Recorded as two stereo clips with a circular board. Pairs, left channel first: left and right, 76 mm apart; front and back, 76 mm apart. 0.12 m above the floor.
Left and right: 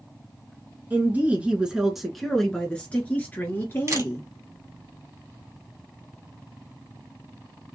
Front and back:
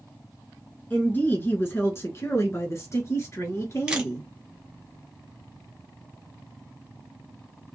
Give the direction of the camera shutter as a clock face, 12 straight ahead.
4 o'clock.